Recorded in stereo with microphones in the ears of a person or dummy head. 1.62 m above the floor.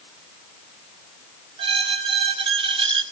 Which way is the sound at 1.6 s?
35° right (ahead or behind).